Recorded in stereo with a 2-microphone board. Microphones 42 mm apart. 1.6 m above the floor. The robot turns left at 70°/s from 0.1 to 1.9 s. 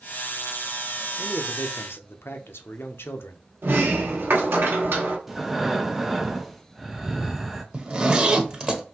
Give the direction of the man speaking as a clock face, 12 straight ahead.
7 o'clock.